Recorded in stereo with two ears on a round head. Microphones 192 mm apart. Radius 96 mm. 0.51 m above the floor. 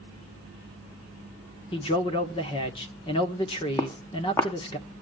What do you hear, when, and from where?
1.7 s a man speaking: 25° left (ahead or behind), 1.4 m
3.8 s footsteps: 15° left (ahead or behind), 1.6 m